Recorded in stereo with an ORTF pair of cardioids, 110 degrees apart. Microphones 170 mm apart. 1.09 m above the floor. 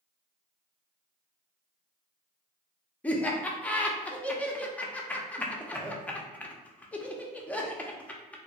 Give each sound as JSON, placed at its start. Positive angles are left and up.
{"t": 3.0, "sound": "laughter", "azimuth_deg": 10, "distance_m": 0.6}